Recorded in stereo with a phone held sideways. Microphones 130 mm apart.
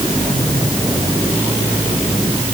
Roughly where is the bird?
I don't hear a bird.